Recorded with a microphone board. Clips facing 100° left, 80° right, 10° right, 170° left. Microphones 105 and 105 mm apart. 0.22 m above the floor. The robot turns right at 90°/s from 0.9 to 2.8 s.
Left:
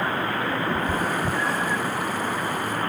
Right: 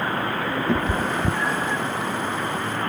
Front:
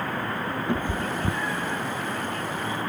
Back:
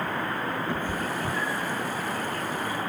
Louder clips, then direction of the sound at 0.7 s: Right 2 dB, front 2 dB; 85° right.